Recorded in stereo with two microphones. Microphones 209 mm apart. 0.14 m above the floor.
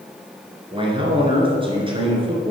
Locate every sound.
0.7 s a man speaking: 25° right (ahead or behind), 1.8 m